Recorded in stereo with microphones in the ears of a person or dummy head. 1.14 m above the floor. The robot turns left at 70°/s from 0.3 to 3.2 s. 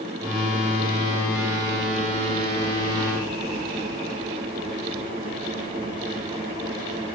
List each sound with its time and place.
Only background noise.